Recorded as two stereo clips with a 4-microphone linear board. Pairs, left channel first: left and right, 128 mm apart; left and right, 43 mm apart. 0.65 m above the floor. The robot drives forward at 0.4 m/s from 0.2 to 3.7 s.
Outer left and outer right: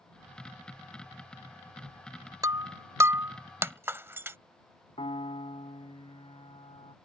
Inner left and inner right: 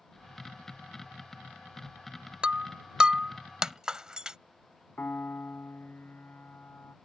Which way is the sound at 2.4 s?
25° right (ahead or behind).